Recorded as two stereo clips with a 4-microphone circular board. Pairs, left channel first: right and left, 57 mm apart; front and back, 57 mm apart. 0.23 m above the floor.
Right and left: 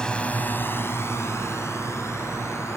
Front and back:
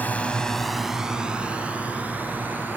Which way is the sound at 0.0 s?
25° right.